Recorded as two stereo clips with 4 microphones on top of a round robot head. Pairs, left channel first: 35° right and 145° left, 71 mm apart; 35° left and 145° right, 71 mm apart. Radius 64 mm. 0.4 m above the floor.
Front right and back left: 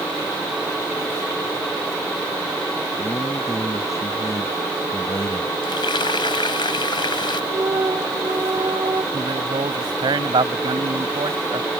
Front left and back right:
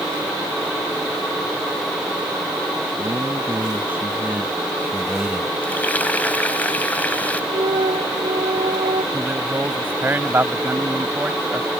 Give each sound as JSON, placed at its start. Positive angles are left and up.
{"t": 3.0, "sound": "a man speaking", "azimuth_deg": -90}
{"t": 5.6, "sound": "frying", "azimuth_deg": -35}
{"t": 7.5, "sound": "a flute", "azimuth_deg": -160}
{"t": 9.1, "sound": "a man speaking", "azimuth_deg": 150}